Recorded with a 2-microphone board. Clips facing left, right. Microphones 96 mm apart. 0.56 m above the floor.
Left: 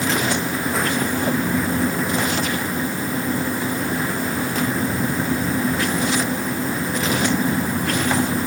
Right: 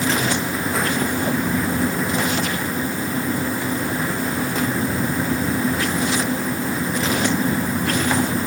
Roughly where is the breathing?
I don't hear breathing.